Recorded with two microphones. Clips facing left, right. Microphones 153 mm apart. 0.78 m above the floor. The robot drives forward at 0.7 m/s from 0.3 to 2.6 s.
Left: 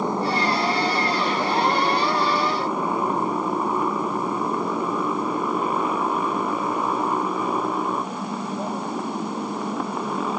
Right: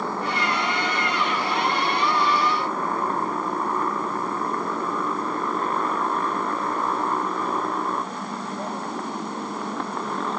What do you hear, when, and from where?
0.0 s a motorcycle: 15° left (ahead or behind); by 10.4 s 5° left (ahead or behind)